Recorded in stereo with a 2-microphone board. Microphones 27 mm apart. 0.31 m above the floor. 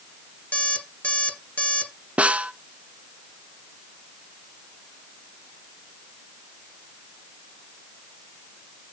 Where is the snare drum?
55° right (ahead or behind), 0.5 m.